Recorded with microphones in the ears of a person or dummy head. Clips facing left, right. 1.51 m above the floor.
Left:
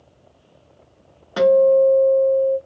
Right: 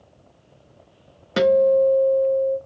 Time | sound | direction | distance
1.4 | a guitar | 30° right (ahead or behind) | 0.6 m